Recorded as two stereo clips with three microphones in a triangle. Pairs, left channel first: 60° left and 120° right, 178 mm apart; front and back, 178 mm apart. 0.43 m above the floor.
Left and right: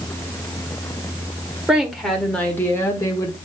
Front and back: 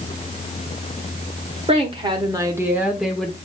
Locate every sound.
1.7 s a woman speaking: 155° left, 1.4 m; by 3.4 s 75° left, 1.2 m